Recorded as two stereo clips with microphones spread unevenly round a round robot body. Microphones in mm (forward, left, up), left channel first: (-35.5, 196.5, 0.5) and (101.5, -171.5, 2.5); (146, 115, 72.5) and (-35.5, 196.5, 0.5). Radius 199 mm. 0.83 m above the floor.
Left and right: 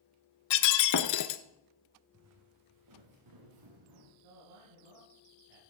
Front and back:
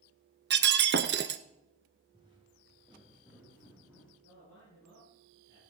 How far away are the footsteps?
About 2 m.